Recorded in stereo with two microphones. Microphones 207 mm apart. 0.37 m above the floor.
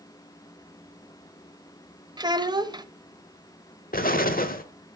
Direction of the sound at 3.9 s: 45° left (ahead or behind).